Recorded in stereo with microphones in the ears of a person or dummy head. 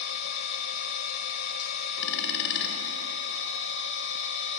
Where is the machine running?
60° left (ahead or behind), 2 m.